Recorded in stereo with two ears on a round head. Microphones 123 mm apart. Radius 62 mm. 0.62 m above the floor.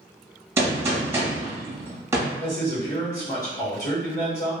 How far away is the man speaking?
About 1.8 m.